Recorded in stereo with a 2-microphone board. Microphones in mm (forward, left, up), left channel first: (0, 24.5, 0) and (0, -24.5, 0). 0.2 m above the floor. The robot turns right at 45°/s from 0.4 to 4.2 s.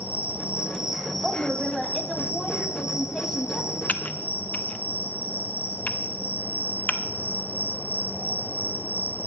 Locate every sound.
0.0 s an insect: 30° right, 1.0 m; by 9.3 s 140° left, 1.0 m
1.2 s a woman speaking: 15° right (ahead or behind), 1.2 m; by 3.8 s 20° left (ahead or behind), 1.2 m
3.9 s typing on a keyboard: 35° left (ahead or behind), 0.5 m